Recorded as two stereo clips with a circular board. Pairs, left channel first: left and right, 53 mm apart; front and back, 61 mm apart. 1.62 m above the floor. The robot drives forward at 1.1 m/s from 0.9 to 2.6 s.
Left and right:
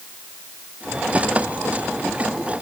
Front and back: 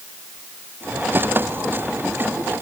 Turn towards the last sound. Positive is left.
No sound to turn to.